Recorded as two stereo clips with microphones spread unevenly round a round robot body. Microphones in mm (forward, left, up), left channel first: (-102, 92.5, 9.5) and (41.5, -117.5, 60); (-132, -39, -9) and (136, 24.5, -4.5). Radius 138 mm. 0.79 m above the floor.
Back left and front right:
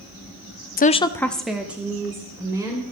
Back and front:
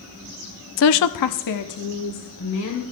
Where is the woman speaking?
160° left, 0.5 m; by 2.8 s 135° right, 3 m.